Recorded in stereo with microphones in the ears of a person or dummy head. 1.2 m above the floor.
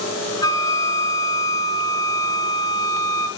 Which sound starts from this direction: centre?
A flute, at 0.4 s.